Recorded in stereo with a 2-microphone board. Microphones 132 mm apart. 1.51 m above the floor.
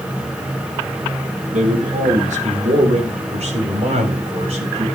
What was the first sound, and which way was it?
A man speaking, 70° right (ahead or behind).